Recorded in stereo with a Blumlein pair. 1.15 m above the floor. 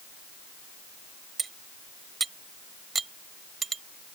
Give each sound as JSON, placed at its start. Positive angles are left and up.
{"t": 1.4, "sound": "cutlery clinking", "azimuth_deg": -15}